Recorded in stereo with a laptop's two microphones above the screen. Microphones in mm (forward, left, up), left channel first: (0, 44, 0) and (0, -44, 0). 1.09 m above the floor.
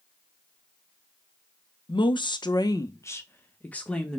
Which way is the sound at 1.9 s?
70° left (ahead or behind).